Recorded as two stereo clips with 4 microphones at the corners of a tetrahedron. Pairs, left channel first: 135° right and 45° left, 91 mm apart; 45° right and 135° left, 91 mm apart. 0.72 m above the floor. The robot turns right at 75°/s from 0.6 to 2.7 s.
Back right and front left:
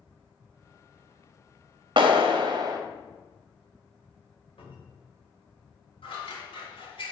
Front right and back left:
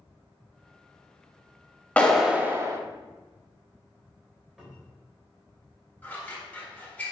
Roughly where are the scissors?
Behind right.